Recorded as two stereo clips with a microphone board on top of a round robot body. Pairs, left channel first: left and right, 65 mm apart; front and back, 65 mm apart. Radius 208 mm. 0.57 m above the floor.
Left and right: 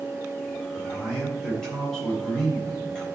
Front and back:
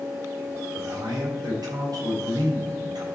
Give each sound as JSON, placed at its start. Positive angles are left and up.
{"t": 0.8, "sound": "a man speaking", "azimuth_deg": 170, "distance_m": 4.0}